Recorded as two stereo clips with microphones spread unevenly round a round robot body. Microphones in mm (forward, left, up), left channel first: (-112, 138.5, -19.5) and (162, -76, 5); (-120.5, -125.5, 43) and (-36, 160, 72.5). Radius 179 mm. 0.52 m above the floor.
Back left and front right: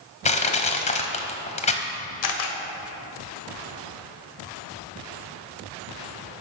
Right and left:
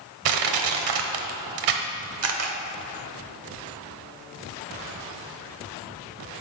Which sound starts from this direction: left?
Crushing, at 0.2 s.